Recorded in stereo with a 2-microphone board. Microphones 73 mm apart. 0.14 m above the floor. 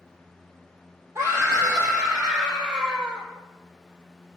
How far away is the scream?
About 4.5 m.